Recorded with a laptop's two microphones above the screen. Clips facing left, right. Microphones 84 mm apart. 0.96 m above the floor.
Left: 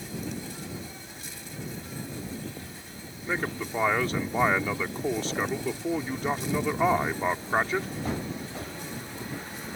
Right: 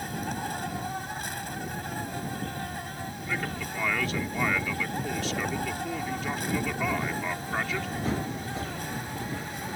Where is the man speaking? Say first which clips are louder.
Left 4 dB; 35° left (ahead or behind).